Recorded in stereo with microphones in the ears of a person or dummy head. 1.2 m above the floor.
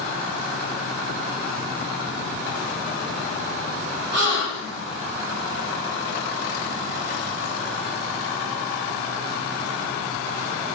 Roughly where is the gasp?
Right.